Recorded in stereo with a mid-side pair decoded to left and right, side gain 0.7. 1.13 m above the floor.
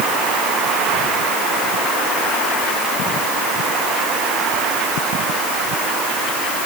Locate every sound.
Only background noise.